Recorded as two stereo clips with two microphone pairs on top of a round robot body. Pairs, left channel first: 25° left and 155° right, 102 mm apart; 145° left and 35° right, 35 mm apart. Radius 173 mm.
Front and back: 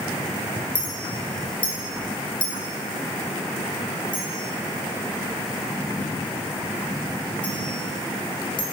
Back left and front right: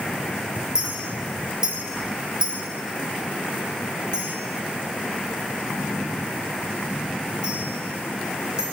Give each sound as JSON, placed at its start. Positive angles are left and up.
{"t": 0.8, "sound": "a clink", "azimuth_deg": 35, "distance_m": 0.8}